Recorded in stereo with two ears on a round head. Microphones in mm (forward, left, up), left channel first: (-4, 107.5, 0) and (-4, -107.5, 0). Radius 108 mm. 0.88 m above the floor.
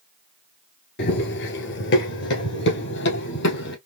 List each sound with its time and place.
1.0 s running footsteps: 45° left (ahead or behind), 1.1 m; by 3.8 s 50° left (ahead or behind), 2 m